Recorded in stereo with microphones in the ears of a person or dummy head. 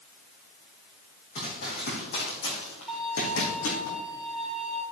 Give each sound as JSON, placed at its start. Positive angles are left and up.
{"t": 1.4, "sound": "running footsteps", "side_deg": 40, "distance_m": 3.5}
{"t": 2.9, "sound": "a violin", "side_deg": 0, "distance_m": 2.0}